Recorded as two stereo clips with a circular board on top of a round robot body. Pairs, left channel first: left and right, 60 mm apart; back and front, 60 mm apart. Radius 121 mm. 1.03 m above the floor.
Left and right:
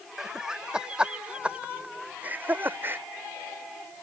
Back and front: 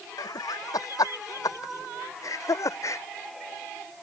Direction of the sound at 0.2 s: 175° right.